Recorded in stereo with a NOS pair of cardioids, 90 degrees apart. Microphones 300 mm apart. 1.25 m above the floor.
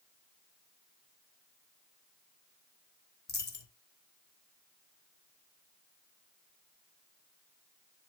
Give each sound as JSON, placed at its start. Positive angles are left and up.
{"t": 3.3, "sound": "a dropped coin", "azimuth_deg": 35, "distance_m": 3.0}